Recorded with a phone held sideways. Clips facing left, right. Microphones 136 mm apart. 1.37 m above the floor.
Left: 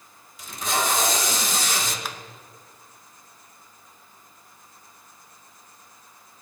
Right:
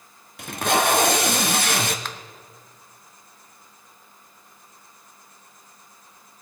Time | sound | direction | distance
0.4 | tape being pulled | 70° right (ahead or behind) | 0.8 m
2.0 | a finger snap | 10° left (ahead or behind) | 0.7 m